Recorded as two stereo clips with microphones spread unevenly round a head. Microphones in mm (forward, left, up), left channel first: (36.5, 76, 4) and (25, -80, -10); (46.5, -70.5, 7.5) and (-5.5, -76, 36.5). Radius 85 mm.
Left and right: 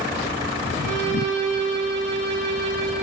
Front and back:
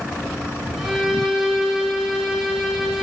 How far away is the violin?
About 2 m.